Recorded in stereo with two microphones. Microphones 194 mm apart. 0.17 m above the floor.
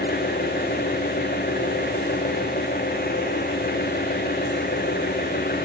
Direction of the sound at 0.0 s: 50° left (ahead or behind).